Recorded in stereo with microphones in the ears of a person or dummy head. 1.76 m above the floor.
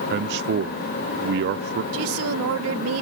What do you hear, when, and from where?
0.1 s a man speaking: 55° right (ahead or behind)
1.9 s a woman speaking: 80° right